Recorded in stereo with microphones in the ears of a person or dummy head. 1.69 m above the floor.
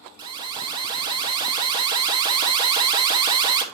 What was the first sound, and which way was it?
An alarm, 30° right (ahead or behind).